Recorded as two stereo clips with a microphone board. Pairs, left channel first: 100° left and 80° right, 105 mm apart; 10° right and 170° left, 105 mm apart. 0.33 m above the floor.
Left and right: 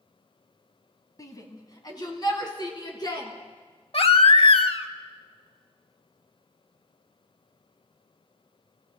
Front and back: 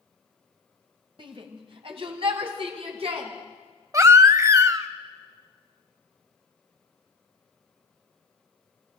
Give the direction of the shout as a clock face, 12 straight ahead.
7 o'clock.